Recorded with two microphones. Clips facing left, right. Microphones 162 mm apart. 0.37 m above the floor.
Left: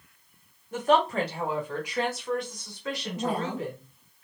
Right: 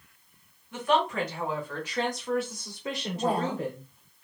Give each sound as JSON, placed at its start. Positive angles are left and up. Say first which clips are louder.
{"t": 0.7, "sound": "a woman speaking", "louder": "left 3 dB", "side_deg": 45, "distance_m": 1.6}
{"t": 3.1, "sound": "a woman speaking", "louder": "right 3 dB", "side_deg": -30, "distance_m": 1.5}